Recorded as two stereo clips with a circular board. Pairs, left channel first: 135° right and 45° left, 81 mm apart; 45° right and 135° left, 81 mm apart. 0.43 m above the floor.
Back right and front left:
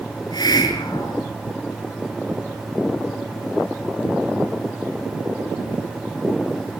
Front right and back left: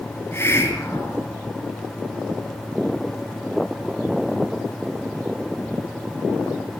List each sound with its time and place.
0.1 s a hiss: 105° right, 4 m